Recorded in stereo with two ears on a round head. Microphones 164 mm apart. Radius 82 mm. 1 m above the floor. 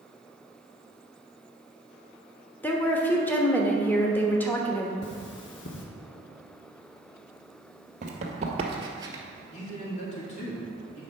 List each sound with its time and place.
2.6 s a woman speaking: 10° left (ahead or behind), 1.1 m
5.0 s cutlery clinking: 70° left (ahead or behind), 0.9 m
8.0 s running footsteps: 45° right (ahead or behind), 1.7 m; by 9.2 s 15° right (ahead or behind), 1.2 m
9.5 s a man speaking: 40° left (ahead or behind), 1.8 m